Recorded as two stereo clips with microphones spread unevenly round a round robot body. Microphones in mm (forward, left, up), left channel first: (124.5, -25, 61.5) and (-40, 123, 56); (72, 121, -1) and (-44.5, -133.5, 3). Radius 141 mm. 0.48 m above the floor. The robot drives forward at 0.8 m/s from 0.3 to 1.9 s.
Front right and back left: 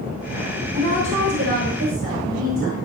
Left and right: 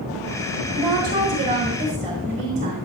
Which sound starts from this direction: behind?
A woman speaking, at 0.7 s.